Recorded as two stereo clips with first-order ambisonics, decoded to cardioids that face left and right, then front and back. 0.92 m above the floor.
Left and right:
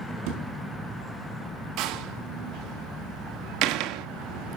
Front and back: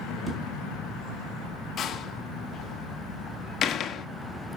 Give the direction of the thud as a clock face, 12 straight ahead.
3 o'clock.